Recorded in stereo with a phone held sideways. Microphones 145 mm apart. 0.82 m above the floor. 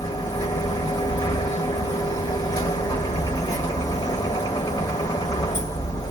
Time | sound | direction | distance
0.0 | a machine running | 30° left (ahead or behind) | 1.0 m